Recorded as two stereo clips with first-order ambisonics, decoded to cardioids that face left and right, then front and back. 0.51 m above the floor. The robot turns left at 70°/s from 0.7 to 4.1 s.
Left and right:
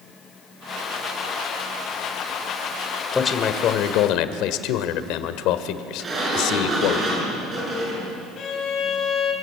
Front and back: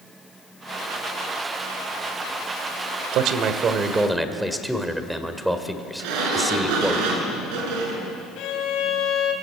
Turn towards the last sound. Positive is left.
turn(degrees=40)